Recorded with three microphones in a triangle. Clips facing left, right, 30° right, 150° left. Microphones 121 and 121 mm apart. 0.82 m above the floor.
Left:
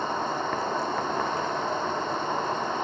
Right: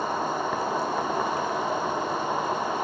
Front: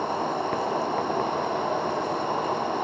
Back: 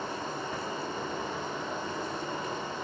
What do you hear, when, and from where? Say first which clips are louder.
0.0 s an insect: right 1 dB, front 9 dB; 5° right, 0.9 m